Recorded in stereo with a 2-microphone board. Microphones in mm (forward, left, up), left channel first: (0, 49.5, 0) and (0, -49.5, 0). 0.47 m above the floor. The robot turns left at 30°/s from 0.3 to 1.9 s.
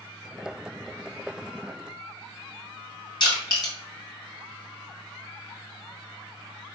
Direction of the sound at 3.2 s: 45° left (ahead or behind).